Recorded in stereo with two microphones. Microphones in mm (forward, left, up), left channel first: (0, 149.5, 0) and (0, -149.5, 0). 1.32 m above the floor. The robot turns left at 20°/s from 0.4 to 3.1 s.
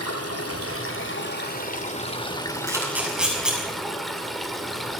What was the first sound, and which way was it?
Running water, 55° left.